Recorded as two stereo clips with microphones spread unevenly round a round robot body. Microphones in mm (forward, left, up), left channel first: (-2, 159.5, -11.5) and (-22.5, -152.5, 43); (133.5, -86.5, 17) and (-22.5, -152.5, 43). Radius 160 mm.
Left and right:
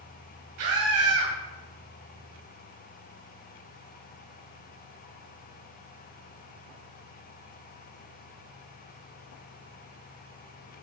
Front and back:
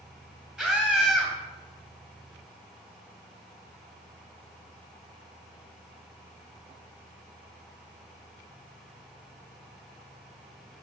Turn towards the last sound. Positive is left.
turn(degrees=-70)